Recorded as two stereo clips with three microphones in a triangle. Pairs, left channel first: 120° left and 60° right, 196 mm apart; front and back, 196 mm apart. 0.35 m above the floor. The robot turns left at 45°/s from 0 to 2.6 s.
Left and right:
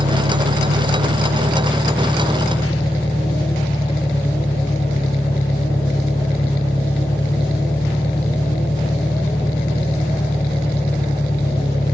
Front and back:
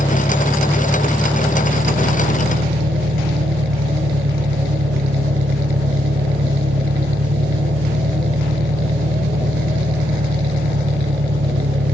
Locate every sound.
0.0 s an engine running: 45° right; by 11.9 s 165° right